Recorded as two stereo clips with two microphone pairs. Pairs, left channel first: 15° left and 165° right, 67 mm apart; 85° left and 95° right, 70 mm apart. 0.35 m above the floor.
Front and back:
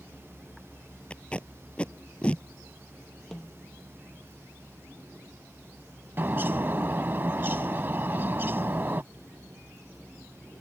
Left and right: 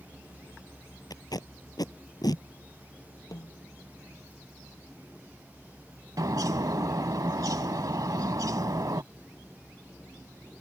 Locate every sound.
1.1 s tape being pulled: 90° left
3.3 s a snare drum: 100° left
6.2 s a bird: 110° right